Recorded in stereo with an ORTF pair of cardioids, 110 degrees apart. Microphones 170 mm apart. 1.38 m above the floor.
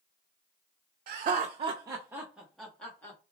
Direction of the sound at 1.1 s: 60° right.